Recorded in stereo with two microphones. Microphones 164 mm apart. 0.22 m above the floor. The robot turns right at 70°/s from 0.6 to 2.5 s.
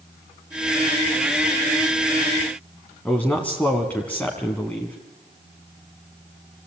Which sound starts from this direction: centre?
A man speaking, at 3.0 s.